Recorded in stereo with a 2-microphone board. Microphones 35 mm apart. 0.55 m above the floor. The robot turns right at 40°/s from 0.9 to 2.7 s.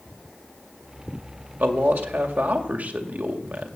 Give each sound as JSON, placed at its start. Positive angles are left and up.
{"t": 1.6, "sound": "a man speaking", "azimuth_deg": -105, "distance_m": 2.0}